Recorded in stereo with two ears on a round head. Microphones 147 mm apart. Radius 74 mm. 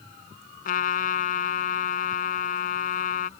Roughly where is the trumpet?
Left.